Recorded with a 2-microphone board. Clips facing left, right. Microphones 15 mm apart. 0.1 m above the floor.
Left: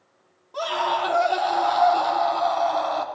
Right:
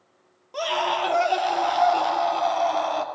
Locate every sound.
0.5 s a scream: 45° right (ahead or behind), 2.5 m